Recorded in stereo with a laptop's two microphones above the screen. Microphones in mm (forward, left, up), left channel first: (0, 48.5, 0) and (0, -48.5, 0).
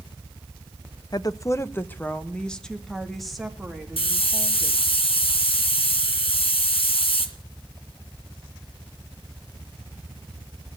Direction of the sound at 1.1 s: 45° left (ahead or behind).